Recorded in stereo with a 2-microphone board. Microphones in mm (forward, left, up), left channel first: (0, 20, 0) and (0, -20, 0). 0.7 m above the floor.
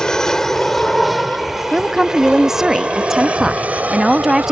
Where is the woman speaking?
10° right (ahead or behind).